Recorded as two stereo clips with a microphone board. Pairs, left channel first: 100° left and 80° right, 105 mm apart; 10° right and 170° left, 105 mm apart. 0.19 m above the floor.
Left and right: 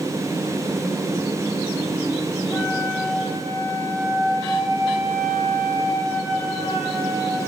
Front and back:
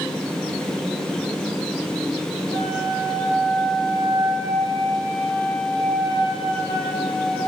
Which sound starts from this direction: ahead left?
A flute, at 2.5 s.